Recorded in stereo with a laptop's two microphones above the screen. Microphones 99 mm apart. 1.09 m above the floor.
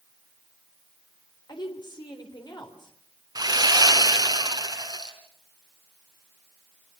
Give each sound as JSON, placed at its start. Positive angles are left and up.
{"t": 1.5, "sound": "a woman speaking", "side_deg": 50, "distance_m": 3.5}
{"t": 3.4, "sound": "sawing", "side_deg": -45, "distance_m": 4.0}